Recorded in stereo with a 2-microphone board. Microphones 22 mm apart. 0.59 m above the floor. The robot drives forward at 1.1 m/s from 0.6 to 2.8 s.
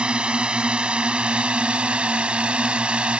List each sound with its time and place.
0.0 s a drone: 65° right (ahead or behind); by 3.2 s 75° right (ahead or behind)